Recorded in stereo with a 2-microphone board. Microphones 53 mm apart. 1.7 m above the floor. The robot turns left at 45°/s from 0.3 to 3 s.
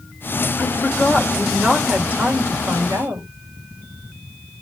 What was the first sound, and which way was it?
A woman speaking, 35° left.